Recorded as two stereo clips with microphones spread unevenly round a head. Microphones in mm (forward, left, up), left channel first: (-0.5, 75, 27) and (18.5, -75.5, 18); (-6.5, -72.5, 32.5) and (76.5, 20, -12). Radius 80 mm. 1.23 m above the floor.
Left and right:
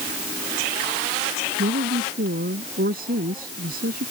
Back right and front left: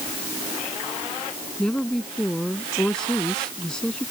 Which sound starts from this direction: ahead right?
A woman speaking, at 1.6 s.